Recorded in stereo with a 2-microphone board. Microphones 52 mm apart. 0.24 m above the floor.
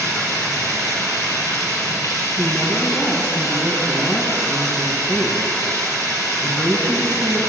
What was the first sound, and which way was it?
Running water, 80° left.